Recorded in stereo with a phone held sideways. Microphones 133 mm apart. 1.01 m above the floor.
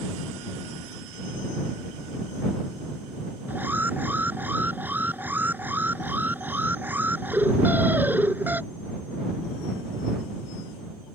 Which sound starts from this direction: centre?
An alarm, at 3.5 s.